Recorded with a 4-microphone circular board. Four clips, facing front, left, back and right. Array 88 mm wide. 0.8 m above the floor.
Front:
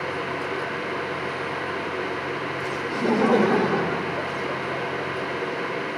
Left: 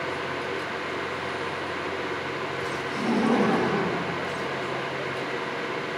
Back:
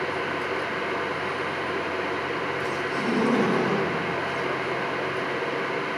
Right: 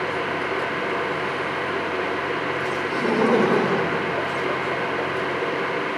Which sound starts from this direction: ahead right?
Laughter, at 2.9 s.